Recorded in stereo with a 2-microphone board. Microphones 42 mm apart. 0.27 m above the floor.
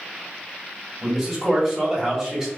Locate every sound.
1.0 s a man speaking: 10° right (ahead or behind), 1.2 m